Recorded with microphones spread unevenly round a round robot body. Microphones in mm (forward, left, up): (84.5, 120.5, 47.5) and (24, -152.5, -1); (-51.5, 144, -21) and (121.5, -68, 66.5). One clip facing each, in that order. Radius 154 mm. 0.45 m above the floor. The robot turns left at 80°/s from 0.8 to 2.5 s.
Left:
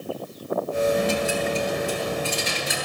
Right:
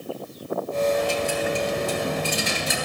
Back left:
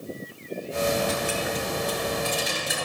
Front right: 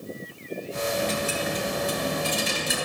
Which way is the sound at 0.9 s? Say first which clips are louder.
Left 1 dB, back left 1 dB; 20° left.